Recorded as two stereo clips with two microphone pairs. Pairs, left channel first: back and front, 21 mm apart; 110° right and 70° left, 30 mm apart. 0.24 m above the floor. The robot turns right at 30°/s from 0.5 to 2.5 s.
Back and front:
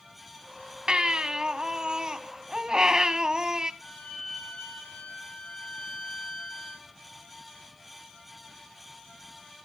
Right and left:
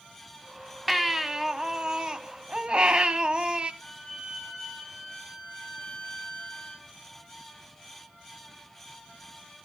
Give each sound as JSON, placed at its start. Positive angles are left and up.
{"t": 0.9, "sound": "a baby crying", "azimuth_deg": -20, "distance_m": 1.1}
{"t": 3.8, "sound": "a violin", "azimuth_deg": 165, "distance_m": 7.5}